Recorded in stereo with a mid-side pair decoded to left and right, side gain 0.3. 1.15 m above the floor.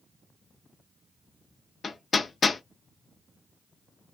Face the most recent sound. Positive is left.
turn(degrees=55)